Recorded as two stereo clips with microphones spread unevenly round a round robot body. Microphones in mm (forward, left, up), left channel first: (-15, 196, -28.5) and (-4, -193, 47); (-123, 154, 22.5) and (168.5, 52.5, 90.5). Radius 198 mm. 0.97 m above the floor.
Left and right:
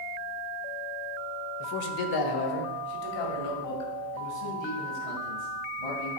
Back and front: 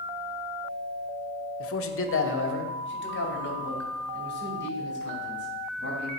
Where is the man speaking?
130° left, 0.8 m; by 6.1 s 105° left, 5 m.